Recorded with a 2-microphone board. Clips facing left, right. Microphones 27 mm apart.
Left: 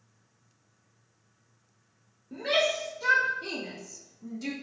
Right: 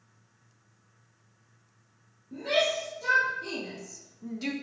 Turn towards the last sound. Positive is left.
turn(degrees=-40)  # may be behind; listen again after turning